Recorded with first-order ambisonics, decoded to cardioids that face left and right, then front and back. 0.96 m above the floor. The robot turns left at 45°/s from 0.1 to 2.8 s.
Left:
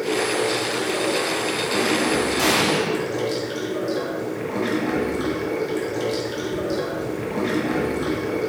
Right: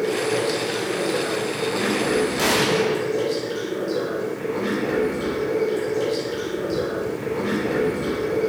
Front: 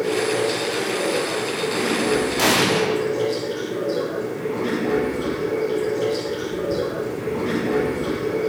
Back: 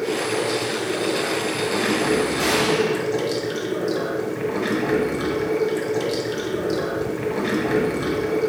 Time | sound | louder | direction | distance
0.0 | running water | even, front 2 dB | 70° right | 1.3 m
2.4 | an explosion | even, front 1 dB | 5° right | 0.6 m